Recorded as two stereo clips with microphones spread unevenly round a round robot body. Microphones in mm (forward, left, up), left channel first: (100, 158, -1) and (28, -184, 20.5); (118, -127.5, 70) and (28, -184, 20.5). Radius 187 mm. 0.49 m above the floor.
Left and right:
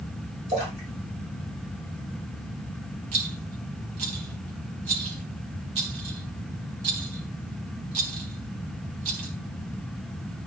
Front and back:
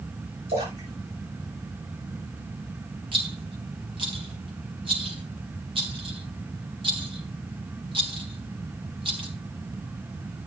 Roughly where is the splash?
Behind.